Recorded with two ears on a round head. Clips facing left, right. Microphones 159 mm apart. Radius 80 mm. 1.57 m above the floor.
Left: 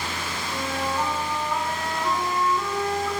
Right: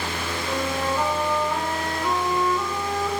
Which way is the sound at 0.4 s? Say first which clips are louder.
Right 3 dB; 35° right (ahead or behind).